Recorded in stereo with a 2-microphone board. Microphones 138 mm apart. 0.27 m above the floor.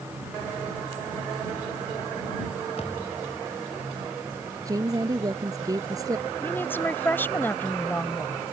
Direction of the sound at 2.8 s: 50° left (ahead or behind).